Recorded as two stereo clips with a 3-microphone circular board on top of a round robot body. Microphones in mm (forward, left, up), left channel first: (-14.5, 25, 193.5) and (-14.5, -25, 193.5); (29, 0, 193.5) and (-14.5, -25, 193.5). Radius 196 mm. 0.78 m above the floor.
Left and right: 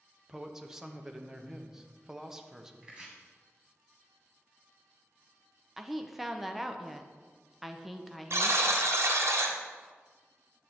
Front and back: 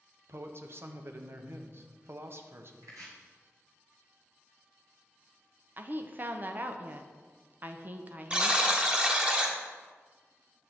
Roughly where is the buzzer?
Right.